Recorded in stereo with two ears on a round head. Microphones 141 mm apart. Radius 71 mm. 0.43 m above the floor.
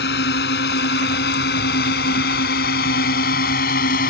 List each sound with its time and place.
0.0 s a drone: 70° left (ahead or behind); by 4.1 s 60° left (ahead or behind)